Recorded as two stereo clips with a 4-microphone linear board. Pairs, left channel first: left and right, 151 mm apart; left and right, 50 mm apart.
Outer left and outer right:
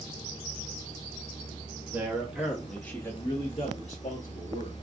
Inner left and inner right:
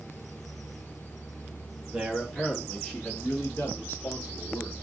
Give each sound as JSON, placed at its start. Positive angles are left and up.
{"t": 1.9, "sound": "a man speaking", "side_deg": -15, "distance_m": 1.3}